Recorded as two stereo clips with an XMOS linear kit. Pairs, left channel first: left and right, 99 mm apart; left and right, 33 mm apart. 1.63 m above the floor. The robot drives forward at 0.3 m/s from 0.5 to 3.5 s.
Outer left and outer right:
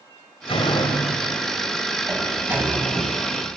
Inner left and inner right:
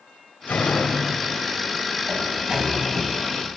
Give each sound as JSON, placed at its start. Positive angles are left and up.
{"t": 0.5, "sound": "a door slam", "side_deg": 75, "distance_m": 6.0}
{"t": 2.1, "sound": "a sliding door", "side_deg": -20, "distance_m": 4.0}